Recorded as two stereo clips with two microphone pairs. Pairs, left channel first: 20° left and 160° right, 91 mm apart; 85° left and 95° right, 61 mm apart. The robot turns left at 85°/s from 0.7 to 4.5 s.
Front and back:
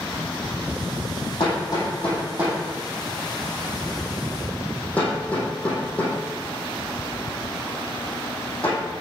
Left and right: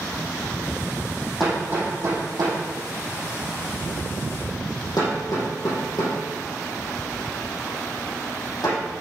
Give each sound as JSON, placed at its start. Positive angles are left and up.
{"t": 1.4, "sound": "hammering", "azimuth_deg": -5, "distance_m": 5.0}